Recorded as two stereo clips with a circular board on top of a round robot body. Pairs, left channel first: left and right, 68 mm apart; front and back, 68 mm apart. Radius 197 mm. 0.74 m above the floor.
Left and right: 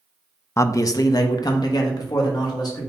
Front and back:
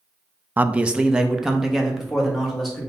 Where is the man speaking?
125° left, 0.5 m; by 2.9 s 90° left, 1.7 m.